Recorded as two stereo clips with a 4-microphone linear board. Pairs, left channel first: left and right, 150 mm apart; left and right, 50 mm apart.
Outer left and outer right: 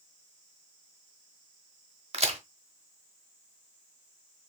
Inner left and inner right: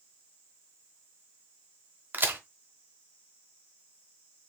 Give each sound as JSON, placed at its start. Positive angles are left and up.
{"t": 2.1, "sound": "a crack", "side_deg": -50, "distance_m": 0.8}